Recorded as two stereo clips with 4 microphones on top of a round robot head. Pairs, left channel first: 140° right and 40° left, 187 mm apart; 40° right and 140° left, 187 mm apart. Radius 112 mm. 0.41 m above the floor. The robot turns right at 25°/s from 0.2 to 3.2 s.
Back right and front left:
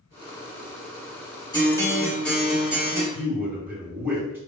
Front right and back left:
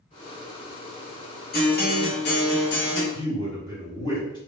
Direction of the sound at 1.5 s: 75° right.